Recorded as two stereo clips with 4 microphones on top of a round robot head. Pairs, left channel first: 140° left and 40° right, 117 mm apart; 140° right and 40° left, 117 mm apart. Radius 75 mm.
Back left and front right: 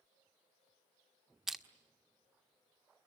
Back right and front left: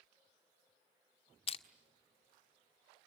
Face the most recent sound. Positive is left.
turn(degrees=-125)